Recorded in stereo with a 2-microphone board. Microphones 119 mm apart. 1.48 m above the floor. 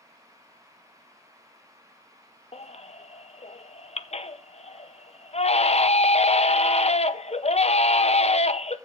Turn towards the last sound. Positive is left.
turn(degrees=60)  # may be behind; listen again after turning